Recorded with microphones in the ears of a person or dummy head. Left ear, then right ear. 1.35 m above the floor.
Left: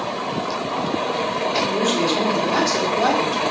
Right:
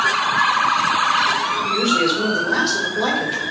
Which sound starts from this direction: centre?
A man speaking, at 1.6 s.